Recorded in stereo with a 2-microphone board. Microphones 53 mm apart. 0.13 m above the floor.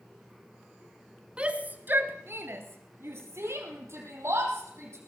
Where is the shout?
20° right (ahead or behind), 1.3 m; by 5.0 s 65° right (ahead or behind), 5 m.